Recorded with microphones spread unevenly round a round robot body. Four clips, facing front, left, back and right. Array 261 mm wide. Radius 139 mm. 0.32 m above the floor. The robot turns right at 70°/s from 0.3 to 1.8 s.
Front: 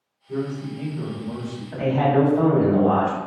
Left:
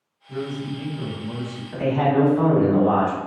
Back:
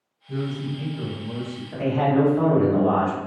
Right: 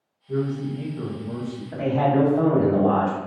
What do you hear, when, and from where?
0.3 s a man speaking: 125° right, 1.6 m; by 1.6 s 35° right, 1.6 m
1.7 s a man speaking: 55° right, 1.7 m; by 3.2 s 50° right, 1.7 m